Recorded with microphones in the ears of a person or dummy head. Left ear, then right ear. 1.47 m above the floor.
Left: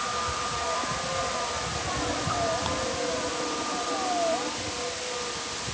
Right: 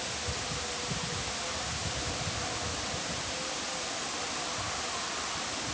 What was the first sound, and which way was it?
Only background noise.